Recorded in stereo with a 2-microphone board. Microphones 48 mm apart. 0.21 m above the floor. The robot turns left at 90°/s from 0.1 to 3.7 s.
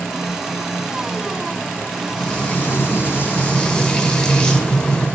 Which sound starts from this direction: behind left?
Frying, at 2.2 s.